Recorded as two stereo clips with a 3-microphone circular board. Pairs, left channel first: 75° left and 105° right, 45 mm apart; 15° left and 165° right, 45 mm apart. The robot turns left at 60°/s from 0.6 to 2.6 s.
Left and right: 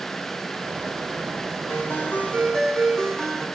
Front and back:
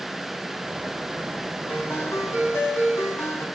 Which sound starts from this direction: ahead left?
A ringtone, at 1.7 s.